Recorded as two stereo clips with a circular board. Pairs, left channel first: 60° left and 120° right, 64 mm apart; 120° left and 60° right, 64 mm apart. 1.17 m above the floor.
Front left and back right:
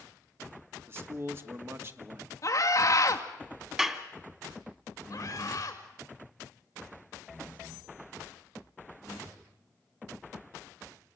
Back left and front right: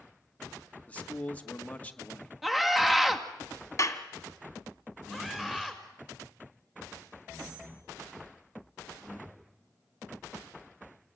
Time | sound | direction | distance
0.9 | a man speaking | 175° right | 1.6 m
2.4 | a scream | 25° left | 2 m
3.8 | a clap | 160° left | 2 m
5.1 | a scream | 20° left | 6 m